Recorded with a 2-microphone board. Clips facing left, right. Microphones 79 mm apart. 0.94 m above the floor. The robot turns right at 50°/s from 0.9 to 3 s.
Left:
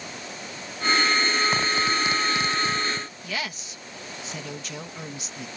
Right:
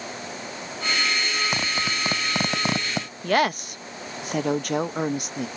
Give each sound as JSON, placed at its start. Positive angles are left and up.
{"t": 1.5, "sound": "a zipper", "side_deg": -10}
{"t": 3.2, "sound": "a woman speaking", "side_deg": -55}